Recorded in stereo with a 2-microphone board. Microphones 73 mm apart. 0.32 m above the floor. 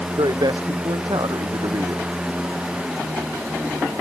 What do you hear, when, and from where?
0.2 s a man speaking: 80° right